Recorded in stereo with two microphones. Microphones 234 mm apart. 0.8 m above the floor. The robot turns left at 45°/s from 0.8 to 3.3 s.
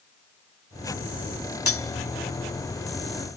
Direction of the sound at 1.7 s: 85° left.